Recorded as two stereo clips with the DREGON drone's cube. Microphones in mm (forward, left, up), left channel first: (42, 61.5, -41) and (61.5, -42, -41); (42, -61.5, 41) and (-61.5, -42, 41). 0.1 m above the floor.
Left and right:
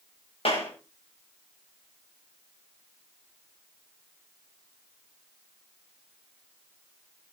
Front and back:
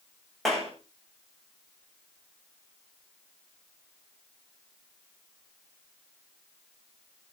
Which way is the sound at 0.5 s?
80° left.